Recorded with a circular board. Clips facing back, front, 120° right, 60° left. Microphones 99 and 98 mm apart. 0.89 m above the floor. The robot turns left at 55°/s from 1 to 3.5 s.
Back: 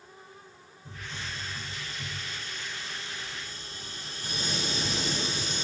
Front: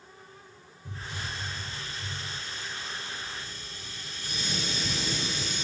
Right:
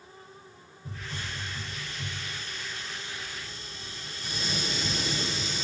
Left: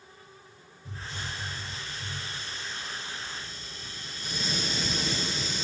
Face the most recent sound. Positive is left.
turn(degrees=150)